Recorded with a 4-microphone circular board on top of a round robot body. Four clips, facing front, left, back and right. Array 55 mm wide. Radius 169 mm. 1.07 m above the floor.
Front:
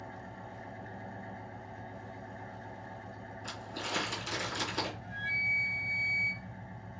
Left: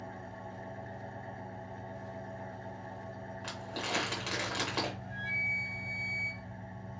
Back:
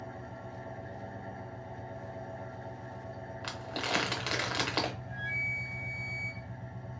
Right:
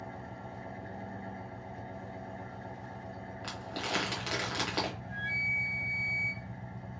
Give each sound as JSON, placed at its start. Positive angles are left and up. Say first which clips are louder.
{"t": 0.0, "sound": "an engine running", "louder": "right 1 dB, back 2 dB", "azimuth_deg": -105, "distance_m": 1.4}
{"t": 3.4, "sound": "crumpling", "louder": "right 1 dB, back 4 dB", "azimuth_deg": -170, "distance_m": 1.1}
{"t": 5.0, "sound": "a flute", "louder": "right 1 dB, front 2 dB", "azimuth_deg": 15, "distance_m": 1.0}